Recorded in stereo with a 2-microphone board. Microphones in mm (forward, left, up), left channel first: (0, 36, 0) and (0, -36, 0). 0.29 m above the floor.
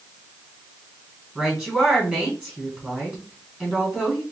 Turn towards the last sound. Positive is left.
turn(degrees=0)  # may be behind; listen again after turning